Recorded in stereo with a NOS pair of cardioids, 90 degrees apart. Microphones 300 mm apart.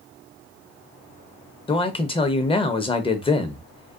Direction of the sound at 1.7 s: 20° left.